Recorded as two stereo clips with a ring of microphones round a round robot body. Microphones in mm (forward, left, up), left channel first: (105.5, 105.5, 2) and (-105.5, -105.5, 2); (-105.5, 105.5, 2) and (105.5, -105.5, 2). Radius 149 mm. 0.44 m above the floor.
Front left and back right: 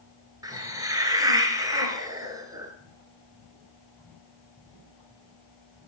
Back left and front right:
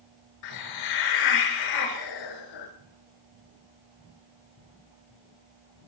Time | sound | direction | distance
0.4 | a hiss | 145° left | 2 m